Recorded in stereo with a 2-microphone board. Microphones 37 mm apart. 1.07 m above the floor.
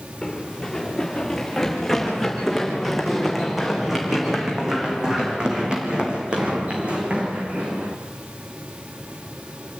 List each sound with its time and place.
0.2 s running footsteps: 10° left (ahead or behind), 5.5 m; by 8.0 s 40° right (ahead or behind), 4 m